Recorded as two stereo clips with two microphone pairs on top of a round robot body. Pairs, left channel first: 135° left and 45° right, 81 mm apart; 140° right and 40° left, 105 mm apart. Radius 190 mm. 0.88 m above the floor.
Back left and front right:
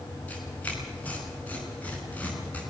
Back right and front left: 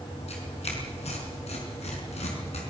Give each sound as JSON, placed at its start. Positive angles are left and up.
{"t": 0.3, "sound": "tearing paper", "azimuth_deg": -155, "distance_m": 4.5}